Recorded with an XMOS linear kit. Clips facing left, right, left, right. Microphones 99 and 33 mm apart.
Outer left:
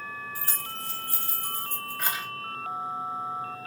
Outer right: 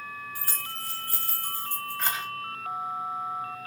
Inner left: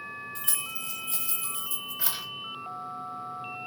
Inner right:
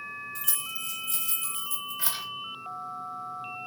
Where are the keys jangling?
30° left (ahead or behind), 1.1 m; by 2.2 s 5° left (ahead or behind), 1.1 m.